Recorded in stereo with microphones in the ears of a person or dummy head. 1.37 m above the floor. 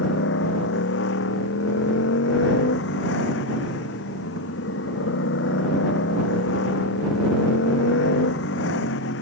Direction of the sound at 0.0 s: 80° left.